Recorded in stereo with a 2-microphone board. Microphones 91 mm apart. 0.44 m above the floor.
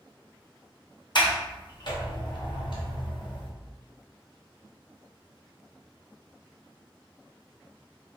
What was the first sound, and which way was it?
A sliding door, 50° left (ahead or behind).